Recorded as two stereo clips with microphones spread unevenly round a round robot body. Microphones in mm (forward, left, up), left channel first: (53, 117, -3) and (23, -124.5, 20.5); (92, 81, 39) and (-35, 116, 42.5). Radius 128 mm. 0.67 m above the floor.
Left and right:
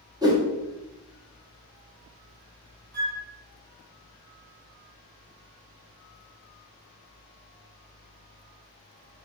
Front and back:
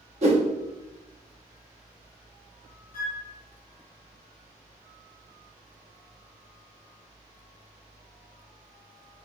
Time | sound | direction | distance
0.2 | a whoosh | 175° right | 0.8 m
2.9 | a flute | 45° right | 1.2 m